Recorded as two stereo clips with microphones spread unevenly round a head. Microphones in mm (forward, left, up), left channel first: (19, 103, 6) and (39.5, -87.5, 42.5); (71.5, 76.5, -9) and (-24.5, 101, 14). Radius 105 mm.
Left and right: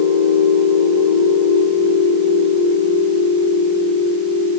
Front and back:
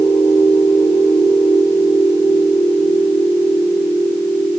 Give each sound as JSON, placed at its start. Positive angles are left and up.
{"t": 0.0, "sound": "a machine running", "azimuth_deg": -85, "distance_m": 8.5}